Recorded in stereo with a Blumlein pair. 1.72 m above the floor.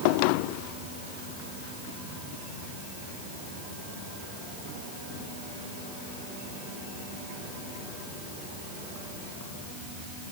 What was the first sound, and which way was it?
Only background noise.